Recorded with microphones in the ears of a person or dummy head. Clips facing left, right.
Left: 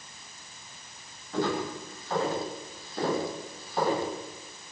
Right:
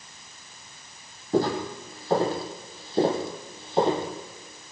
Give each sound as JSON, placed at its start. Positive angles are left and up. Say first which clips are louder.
{"t": 1.3, "sound": "footsteps", "louder": "right 5 dB", "side_deg": -35, "distance_m": 5.0}